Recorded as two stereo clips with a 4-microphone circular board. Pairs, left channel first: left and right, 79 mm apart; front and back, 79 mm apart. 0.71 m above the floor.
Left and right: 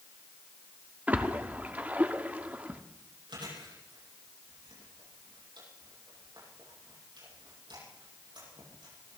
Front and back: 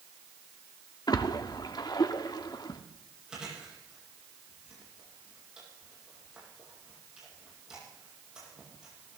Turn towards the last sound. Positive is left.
turn(degrees=-100)